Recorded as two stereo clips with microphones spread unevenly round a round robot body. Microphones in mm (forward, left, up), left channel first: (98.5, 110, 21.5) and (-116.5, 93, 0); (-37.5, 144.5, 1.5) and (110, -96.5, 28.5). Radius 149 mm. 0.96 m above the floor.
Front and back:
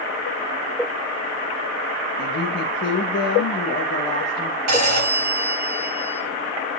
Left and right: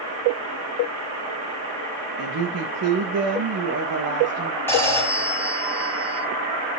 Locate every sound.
2.2 s a woman speaking: 30° right, 1.1 m
4.7 s a phone ringing: 155° right, 2.5 m